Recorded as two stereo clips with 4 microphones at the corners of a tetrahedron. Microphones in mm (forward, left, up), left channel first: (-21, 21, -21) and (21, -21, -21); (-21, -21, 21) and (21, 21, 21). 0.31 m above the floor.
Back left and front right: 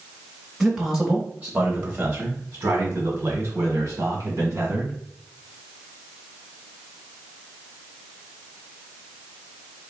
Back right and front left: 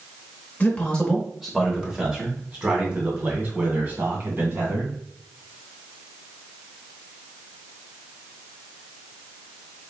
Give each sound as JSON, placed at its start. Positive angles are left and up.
{"t": 0.6, "sound": "a man speaking", "azimuth_deg": -130, "distance_m": 0.9}